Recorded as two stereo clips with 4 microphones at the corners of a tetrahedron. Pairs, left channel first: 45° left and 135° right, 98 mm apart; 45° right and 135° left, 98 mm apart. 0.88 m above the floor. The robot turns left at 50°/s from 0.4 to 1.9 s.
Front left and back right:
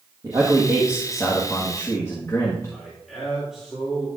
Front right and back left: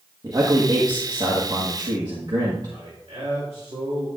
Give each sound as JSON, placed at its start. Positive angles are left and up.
{"t": 0.2, "sound": "a man speaking", "azimuth_deg": 175, "distance_m": 1.4}
{"t": 2.7, "sound": "a man speaking", "azimuth_deg": 140, "distance_m": 2.5}